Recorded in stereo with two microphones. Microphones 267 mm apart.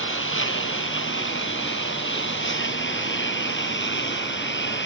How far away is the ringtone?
I don't hear a ringtone.